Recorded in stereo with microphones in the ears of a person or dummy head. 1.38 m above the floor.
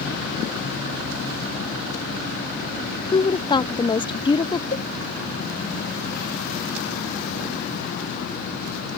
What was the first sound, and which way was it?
A woman speaking, 25° left (ahead or behind).